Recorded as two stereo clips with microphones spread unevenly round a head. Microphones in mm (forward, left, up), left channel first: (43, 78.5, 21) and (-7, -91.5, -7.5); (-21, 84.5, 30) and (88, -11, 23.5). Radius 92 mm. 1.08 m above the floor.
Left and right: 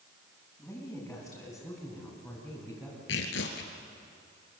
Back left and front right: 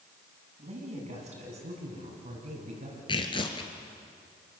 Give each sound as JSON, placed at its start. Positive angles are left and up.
{"t": 0.6, "sound": "a woman speaking", "azimuth_deg": -5, "distance_m": 6.5}
{"t": 3.1, "sound": "tearing paper", "azimuth_deg": 85, "distance_m": 3.0}